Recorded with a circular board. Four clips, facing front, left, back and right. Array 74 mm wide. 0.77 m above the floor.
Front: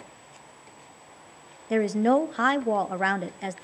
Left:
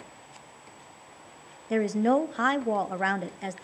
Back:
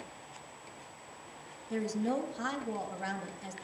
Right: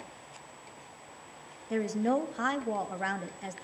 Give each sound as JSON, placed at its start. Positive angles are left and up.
{"t": 1.7, "sound": "a woman speaking", "azimuth_deg": 25, "distance_m": 0.8}